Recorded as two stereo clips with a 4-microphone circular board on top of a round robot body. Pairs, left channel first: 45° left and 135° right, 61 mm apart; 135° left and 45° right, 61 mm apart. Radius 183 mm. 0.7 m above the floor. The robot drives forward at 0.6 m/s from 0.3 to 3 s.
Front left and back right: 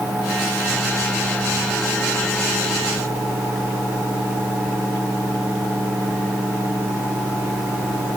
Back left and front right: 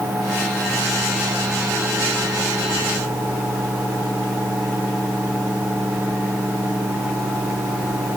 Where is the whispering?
No whispering in this recording.